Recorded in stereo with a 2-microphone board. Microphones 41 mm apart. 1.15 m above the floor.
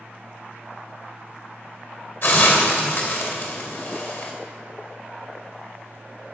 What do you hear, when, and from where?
2.2 s a hiss: 60° left (ahead or behind), 2.5 m